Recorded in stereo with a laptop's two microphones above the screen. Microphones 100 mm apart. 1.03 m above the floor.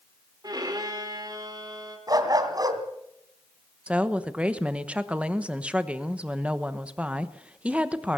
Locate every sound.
0.4 s a violin: 40° right (ahead or behind), 4 m
2.1 s a dog barking: 40° right (ahead or behind), 2.5 m
3.9 s a woman speaking: 10° right (ahead or behind), 1.0 m